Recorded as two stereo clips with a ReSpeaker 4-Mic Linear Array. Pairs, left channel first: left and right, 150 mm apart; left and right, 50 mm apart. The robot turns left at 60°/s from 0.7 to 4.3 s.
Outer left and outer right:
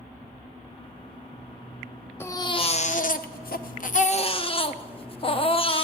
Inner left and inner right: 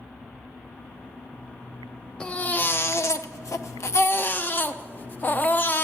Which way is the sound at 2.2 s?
165° left.